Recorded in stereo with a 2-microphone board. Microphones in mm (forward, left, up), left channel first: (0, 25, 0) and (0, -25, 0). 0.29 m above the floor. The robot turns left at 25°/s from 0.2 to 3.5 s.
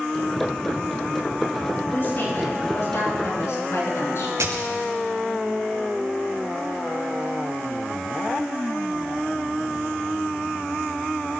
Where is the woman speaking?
130° left, 4 m; by 4.3 s 90° left, 4 m.